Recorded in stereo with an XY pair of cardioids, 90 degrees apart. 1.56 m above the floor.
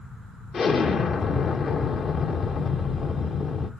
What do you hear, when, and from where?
0.5 s an explosion: 65° left, 2 m